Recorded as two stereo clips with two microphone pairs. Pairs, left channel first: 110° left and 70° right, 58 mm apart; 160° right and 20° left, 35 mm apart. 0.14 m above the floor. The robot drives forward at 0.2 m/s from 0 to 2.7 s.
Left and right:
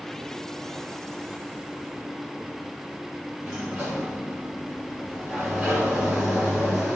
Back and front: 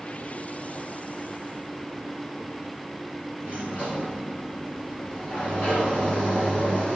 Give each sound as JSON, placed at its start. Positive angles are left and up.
{"t": 3.4, "sound": "a sliding door", "azimuth_deg": -150, "distance_m": 1.5}